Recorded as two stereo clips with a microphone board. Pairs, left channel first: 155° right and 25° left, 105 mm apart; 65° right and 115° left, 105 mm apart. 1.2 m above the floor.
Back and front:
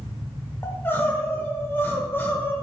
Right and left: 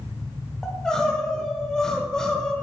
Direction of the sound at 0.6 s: 140° right.